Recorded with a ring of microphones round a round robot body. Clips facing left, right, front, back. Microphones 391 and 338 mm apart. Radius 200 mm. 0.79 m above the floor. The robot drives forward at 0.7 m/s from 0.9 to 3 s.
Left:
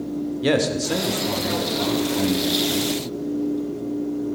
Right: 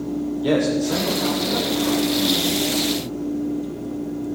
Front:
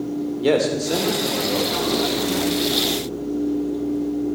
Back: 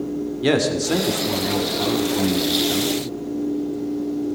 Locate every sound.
0.4 s a man speaking: 125° left, 2.5 m; by 2.9 s 145° left, 3.5 m